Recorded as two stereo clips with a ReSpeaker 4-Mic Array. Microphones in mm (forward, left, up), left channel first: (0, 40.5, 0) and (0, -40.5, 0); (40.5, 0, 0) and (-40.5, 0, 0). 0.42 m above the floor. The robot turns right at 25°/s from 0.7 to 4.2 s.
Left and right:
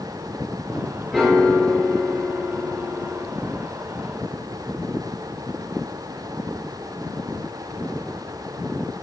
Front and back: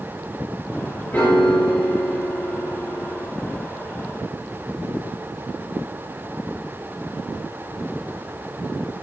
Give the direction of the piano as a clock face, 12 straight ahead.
12 o'clock.